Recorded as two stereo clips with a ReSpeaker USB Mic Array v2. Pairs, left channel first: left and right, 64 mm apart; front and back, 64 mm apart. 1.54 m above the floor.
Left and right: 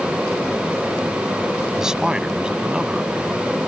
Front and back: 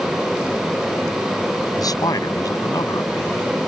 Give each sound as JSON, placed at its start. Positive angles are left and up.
{"t": 1.8, "sound": "a man speaking", "azimuth_deg": -10}